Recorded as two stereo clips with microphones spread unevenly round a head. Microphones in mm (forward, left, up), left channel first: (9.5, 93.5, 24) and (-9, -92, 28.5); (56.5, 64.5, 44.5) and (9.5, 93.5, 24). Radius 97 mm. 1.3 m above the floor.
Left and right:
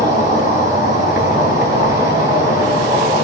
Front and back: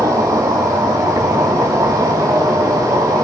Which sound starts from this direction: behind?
An insect, at 0.0 s.